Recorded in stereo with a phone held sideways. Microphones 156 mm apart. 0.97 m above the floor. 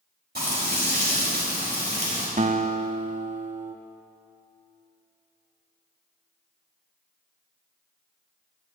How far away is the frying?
About 5 m.